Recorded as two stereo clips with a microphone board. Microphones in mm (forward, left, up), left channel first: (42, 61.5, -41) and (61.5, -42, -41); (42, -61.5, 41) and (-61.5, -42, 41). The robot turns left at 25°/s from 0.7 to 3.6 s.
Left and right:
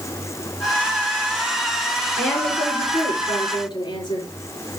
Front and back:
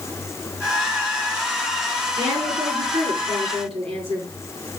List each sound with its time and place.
2.2 s a woman speaking: straight behind, 5.5 m; by 4.3 s 145° left, 5.5 m